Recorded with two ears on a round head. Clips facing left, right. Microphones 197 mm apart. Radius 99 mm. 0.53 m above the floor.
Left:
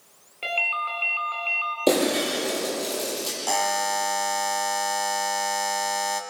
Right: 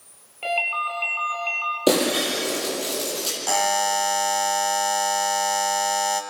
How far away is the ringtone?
About 3.5 m.